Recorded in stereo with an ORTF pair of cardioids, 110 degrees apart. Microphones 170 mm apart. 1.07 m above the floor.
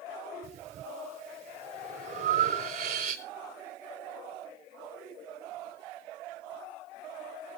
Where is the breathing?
65° right, 4 m.